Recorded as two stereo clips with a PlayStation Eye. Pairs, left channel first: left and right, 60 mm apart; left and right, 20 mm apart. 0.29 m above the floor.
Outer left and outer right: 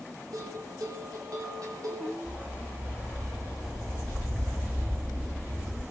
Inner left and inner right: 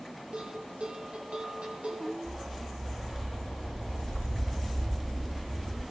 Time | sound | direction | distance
0.3 | a bell | 80° right | 6 m
2.2 | a dog barking | 20° right (ahead or behind) | 5 m